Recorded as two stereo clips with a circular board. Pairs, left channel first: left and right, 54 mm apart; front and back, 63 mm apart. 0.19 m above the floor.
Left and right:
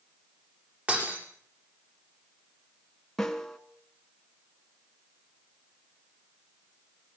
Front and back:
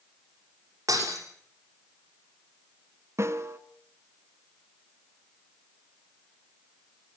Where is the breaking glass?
155° right, 6 m.